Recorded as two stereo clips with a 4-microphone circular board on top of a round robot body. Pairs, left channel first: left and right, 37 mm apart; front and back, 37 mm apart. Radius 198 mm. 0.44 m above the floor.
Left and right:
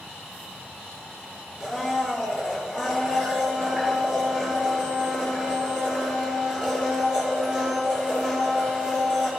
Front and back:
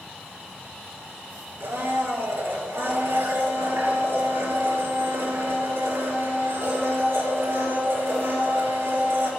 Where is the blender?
165° right, 4 m.